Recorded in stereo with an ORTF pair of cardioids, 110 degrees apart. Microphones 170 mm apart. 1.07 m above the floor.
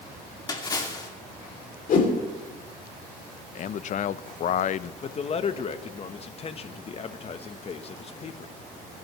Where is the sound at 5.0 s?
35° left, 1.0 m.